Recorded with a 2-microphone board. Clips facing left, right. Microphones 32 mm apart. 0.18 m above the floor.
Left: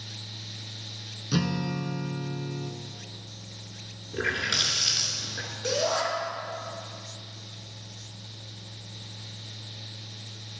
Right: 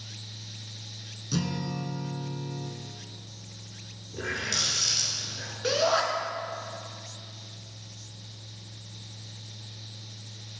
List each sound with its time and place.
1.3 s a guitar: 30° left (ahead or behind), 0.7 m
4.1 s a running tap: 50° left (ahead or behind), 1.8 m
5.6 s a shout: 30° right (ahead or behind), 2.5 m